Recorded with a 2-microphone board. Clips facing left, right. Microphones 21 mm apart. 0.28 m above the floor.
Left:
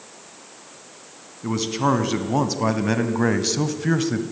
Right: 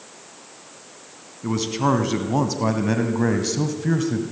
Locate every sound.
1.4 s a man speaking: centre (ahead or behind), 3 m; by 4.2 s 30° left (ahead or behind), 2 m